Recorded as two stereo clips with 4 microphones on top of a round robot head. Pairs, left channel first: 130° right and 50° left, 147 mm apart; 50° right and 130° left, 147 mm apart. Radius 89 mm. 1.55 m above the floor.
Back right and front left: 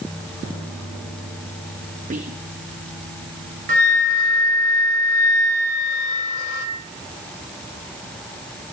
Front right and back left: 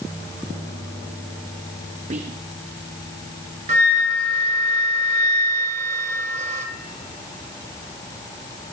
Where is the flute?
85° left, 2 m.